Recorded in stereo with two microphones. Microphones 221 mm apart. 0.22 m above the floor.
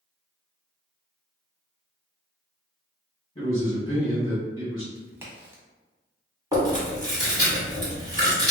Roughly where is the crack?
Centre.